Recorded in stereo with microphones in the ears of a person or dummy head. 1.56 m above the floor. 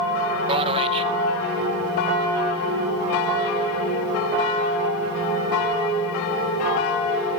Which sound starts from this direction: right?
A man speaking, at 0.5 s.